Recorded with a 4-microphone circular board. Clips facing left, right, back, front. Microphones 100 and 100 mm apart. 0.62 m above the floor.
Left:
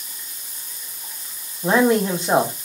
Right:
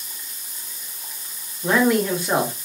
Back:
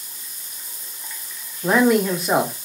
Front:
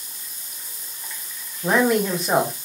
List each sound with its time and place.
1.6 s a man speaking: 95° left, 1.0 m